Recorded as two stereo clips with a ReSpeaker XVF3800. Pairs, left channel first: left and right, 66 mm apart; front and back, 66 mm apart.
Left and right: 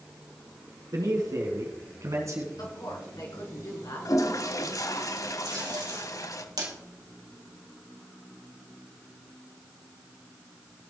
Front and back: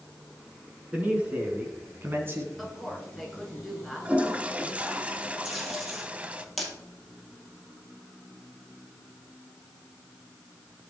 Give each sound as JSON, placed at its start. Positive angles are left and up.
{"t": 0.9, "sound": "a man speaking", "azimuth_deg": -115, "distance_m": 3.0}
{"t": 2.6, "sound": "a woman speaking", "azimuth_deg": 90, "distance_m": 3.5}
{"t": 4.0, "sound": "a toilet flushing", "azimuth_deg": 110, "distance_m": 0.8}
{"t": 5.5, "sound": "tape being pulled", "azimuth_deg": -85, "distance_m": 3.5}